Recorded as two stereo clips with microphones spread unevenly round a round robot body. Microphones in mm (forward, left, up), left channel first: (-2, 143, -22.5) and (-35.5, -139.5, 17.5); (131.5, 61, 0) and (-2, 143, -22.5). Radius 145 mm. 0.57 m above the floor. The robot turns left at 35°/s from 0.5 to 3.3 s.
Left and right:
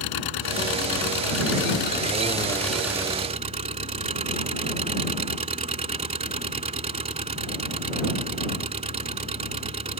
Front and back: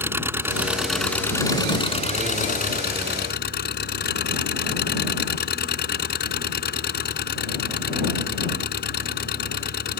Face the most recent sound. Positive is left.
turn(degrees=-25)